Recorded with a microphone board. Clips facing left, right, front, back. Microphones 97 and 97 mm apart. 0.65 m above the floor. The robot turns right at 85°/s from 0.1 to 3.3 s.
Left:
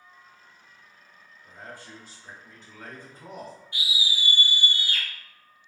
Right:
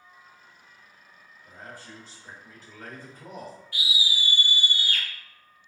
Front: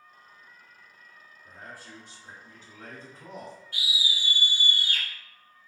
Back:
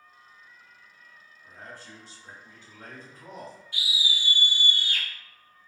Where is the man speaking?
105° right, 1.5 m; by 3.6 s 50° left, 1.5 m.